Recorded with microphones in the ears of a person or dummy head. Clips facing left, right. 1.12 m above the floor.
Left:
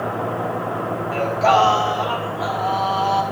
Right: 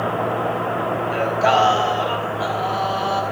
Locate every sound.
1.1 s singing: 10° right (ahead or behind), 1.0 m